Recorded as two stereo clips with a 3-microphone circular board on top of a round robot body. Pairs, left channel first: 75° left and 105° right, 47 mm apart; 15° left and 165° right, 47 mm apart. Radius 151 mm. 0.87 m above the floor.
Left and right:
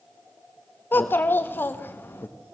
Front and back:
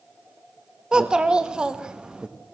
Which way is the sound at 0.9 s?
120° left.